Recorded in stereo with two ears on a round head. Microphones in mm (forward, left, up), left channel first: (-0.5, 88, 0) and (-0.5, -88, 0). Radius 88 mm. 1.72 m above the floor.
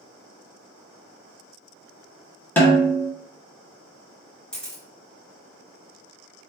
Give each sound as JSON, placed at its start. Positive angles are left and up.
{"t": 2.6, "sound": "a snare drum", "side_deg": 10, "distance_m": 1.1}
{"t": 4.5, "sound": "a camera shutter", "side_deg": 5, "distance_m": 1.4}